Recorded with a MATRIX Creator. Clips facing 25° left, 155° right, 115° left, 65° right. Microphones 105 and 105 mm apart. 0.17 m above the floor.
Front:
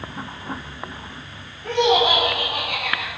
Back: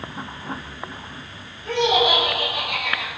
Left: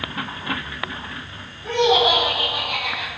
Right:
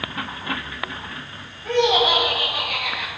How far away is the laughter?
About 5 m.